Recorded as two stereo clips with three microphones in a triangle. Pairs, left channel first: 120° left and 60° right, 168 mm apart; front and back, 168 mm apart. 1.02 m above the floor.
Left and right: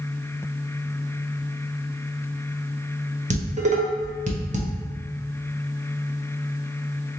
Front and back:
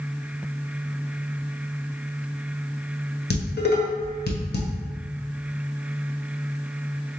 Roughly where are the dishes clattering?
Ahead.